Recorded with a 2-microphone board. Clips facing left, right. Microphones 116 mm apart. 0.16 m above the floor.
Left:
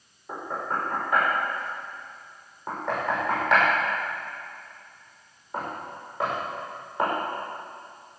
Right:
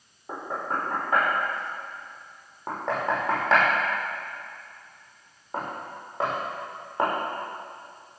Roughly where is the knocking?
Right.